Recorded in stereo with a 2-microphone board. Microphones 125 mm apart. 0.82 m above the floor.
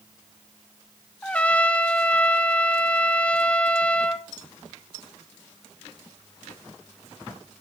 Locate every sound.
1.2 s a trumpet: 10° left (ahead or behind), 0.5 m